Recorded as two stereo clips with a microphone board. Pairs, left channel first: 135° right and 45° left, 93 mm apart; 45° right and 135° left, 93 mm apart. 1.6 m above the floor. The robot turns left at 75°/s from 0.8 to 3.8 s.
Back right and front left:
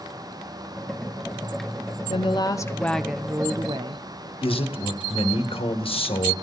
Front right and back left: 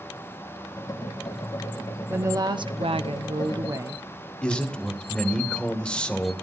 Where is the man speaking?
125° right, 1.5 m.